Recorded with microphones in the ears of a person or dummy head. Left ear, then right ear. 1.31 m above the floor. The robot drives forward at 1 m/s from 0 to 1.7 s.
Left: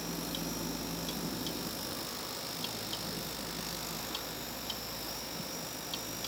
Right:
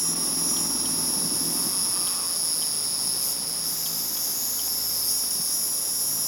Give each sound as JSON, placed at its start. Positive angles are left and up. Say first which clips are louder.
{"t": 0.0, "sound": "an insect", "louder": "right 9 dB", "side_deg": -65}